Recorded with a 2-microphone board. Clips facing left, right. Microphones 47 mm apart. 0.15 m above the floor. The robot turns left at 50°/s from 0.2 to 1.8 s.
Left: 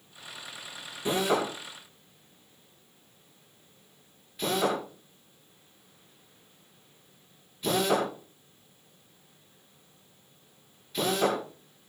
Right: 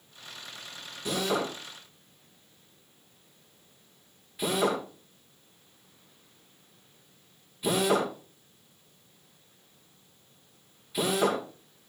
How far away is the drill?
About 7.5 m.